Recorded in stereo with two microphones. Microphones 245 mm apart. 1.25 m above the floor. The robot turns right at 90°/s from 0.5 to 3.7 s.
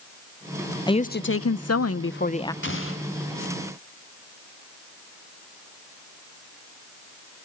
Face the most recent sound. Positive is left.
turn(degrees=160)